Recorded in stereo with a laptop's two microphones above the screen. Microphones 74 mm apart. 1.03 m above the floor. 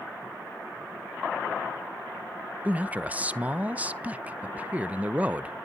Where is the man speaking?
20° right (ahead or behind), 0.6 m.